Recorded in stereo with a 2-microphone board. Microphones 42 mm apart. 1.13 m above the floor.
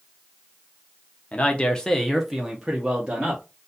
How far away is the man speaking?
About 0.7 m.